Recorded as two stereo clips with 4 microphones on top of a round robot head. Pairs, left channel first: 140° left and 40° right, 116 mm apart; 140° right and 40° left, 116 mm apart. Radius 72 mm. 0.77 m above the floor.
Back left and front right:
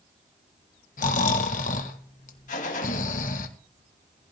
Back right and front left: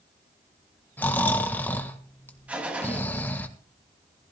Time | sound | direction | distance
1.0 | snoring | 145° left | 1.5 m
2.5 | a gunshot | 120° left | 2.5 m